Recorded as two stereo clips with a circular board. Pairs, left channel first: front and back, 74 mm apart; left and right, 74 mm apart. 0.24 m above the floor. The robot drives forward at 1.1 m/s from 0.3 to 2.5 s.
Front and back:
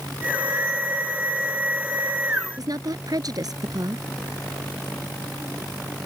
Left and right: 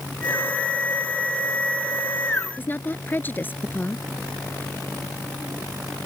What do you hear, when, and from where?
2.6 s a woman speaking: 150° left